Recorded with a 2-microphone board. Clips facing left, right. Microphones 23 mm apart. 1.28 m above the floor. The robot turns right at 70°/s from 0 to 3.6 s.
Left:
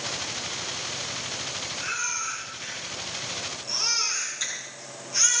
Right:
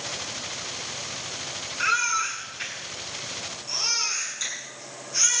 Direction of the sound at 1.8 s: 130° right.